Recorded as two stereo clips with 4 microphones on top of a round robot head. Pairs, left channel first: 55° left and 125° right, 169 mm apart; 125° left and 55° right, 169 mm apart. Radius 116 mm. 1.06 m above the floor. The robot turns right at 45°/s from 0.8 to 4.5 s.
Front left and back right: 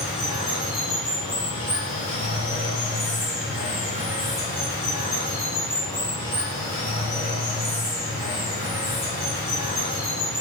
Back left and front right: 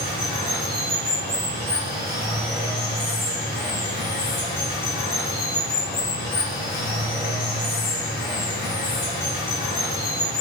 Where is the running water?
40° right, 1.3 m; by 10.4 s 130° left, 1.3 m.